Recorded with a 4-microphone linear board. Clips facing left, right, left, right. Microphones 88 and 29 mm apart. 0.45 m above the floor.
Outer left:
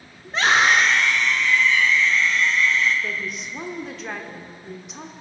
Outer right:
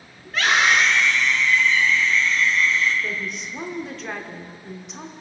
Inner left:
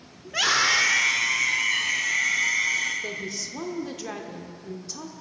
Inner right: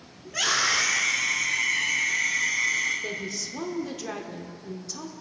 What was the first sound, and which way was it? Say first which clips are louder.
A scream: outer left 1 dB, inner left 3 dB; 20° left (ahead or behind).